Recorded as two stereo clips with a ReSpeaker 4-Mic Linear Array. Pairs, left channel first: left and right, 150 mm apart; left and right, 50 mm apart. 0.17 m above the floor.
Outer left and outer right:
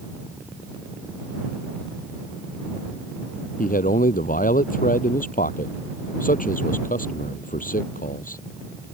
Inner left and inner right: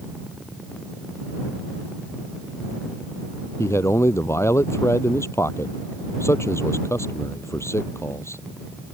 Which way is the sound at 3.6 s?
70° left (ahead or behind).